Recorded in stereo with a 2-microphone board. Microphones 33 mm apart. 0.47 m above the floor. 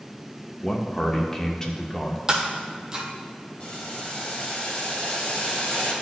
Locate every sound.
0.6 s a man speaking: 15° left (ahead or behind), 0.8 m
2.3 s breaking glass: 15° right (ahead or behind), 1.4 m
3.6 s boiling: 40° left (ahead or behind), 2.5 m